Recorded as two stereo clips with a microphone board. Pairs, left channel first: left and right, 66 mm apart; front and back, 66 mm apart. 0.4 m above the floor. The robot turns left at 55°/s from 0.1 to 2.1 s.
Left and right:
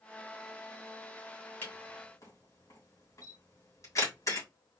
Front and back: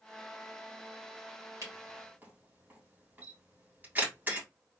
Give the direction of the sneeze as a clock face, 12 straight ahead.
I don't hear a sneeze.